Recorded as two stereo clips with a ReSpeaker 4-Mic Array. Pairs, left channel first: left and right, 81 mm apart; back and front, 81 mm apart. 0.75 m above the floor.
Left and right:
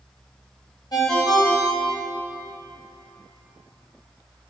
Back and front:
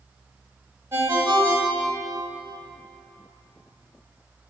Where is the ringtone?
55° left, 2 m.